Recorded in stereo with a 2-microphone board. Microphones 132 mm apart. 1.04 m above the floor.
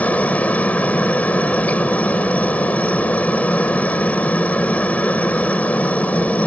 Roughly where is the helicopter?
Centre.